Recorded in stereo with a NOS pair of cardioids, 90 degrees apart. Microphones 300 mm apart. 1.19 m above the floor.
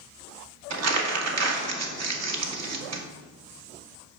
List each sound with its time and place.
0.7 s crumpling: 55° right, 1.6 m